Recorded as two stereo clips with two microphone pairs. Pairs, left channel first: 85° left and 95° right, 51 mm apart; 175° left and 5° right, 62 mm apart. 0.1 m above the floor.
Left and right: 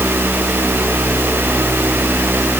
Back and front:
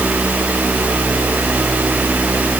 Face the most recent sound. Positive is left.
No sound to turn to.